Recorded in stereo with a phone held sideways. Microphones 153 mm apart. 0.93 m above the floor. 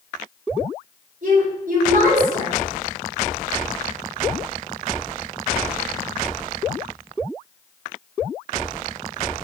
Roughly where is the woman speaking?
Right.